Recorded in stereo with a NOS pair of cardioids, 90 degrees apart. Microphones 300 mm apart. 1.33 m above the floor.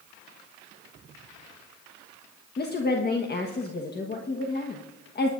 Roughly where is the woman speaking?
Ahead left.